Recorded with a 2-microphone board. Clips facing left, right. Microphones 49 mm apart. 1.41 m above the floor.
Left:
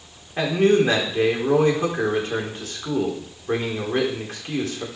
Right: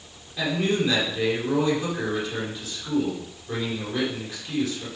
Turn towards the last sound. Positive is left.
turn(degrees=45)  # may be behind; listen again after turning